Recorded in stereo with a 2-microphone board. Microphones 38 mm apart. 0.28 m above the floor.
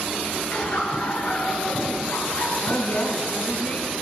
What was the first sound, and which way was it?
Laughter, 35° left (ahead or behind).